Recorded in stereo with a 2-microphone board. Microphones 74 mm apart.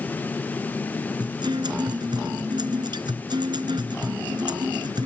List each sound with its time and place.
1.2 s a guitar: 90° right